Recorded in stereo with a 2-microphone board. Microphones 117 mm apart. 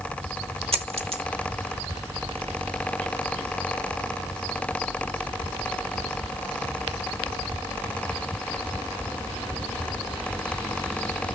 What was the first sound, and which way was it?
A dropped coin, 55° right (ahead or behind).